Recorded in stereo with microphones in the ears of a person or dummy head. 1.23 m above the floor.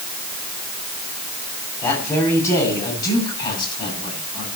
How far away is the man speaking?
About 9.5 m.